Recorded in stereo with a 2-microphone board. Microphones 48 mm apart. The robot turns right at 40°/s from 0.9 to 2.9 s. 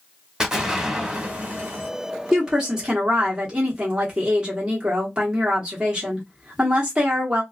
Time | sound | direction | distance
0.4 | an explosion | 165° right | 1.0 m
2.3 | a woman speaking | 10° right (ahead or behind) | 1.1 m